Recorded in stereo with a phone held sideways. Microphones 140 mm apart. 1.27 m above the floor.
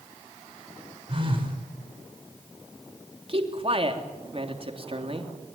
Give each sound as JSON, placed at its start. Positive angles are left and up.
{"t": 1.1, "sound": "a phone buzzing", "side_deg": -40, "distance_m": 4.5}
{"t": 3.3, "sound": "a man speaking", "side_deg": -45, "distance_m": 3.0}